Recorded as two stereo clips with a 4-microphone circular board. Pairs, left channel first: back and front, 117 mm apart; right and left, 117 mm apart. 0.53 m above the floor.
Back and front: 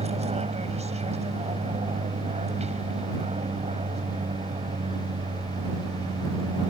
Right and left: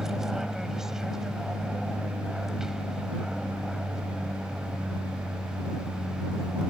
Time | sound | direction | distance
0.0 | an aircraft | 5° left | ?